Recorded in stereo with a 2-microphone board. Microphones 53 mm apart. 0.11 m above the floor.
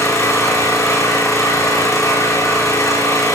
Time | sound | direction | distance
0.0 | an engine running | 65° left (ahead or behind) | 9.5 m